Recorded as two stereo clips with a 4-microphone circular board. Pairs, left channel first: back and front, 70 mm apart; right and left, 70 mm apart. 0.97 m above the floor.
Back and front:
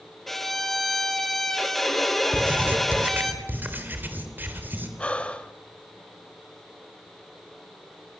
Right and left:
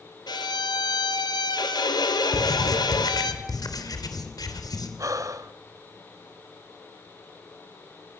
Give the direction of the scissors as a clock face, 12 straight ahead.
I don't hear scissors.